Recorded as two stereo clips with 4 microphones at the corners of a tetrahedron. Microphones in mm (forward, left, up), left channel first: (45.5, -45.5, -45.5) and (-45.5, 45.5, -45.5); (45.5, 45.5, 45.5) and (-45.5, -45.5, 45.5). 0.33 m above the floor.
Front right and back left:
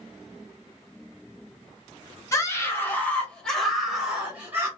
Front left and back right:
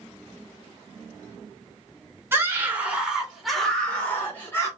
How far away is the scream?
About 1.3 m.